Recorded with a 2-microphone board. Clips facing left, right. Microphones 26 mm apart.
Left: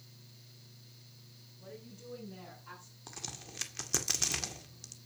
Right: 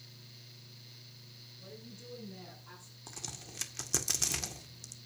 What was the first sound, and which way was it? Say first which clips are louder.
A woman speaking: left 2 dB; 30° left (ahead or behind).